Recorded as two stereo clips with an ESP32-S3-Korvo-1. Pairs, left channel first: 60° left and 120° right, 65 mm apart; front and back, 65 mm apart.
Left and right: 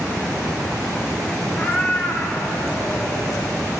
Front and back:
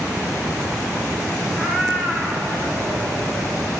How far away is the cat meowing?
About 3.5 m.